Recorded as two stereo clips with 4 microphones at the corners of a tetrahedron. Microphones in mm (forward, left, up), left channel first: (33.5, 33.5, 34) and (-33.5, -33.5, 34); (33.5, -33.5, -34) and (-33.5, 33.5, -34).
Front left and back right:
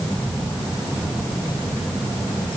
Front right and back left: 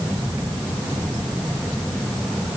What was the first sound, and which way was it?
Only background noise.